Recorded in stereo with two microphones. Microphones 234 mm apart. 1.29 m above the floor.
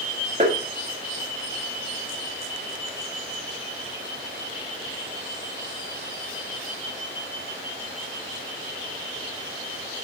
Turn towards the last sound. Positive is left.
turn(degrees=-30)  # may be behind; listen again after turning